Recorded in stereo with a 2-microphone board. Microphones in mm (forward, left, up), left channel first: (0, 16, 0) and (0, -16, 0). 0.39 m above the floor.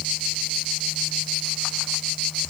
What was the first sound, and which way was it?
Only background noise.